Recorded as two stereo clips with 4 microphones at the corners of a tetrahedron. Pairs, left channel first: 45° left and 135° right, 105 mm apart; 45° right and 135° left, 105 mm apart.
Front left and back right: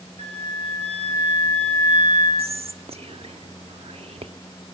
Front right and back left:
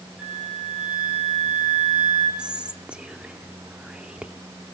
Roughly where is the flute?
Behind right.